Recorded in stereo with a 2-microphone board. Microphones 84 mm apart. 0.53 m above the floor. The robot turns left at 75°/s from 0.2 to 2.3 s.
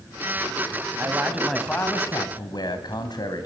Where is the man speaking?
140° right, 3.5 m; by 3.5 s 120° left, 3.5 m.